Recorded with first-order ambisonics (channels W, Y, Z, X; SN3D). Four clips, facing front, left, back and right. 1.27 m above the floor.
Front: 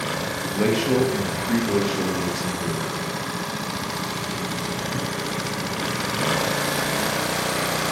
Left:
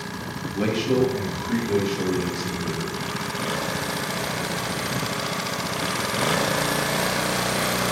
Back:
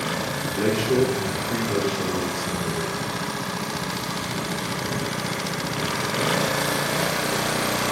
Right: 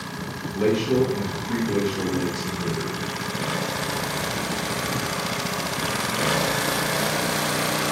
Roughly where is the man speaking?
Ahead.